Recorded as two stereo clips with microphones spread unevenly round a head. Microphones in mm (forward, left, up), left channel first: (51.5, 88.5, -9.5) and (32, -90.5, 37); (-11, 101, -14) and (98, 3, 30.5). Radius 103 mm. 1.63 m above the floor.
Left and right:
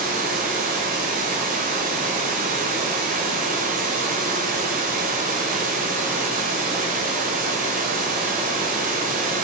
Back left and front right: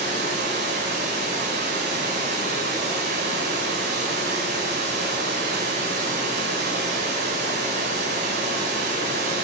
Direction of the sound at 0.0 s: 55° right.